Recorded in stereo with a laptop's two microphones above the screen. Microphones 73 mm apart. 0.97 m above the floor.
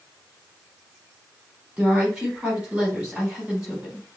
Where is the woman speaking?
10° right (ahead or behind), 4 m.